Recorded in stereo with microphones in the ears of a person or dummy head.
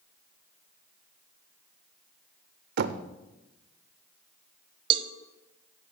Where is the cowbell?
30° right (ahead or behind), 0.6 m.